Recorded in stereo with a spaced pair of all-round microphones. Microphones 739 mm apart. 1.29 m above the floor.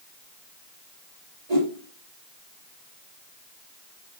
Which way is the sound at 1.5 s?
55° right (ahead or behind).